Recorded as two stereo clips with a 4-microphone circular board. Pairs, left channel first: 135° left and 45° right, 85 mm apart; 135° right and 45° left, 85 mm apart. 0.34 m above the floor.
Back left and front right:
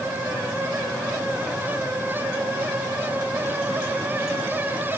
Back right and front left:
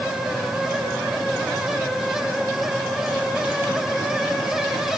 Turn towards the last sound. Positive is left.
No sound to turn to.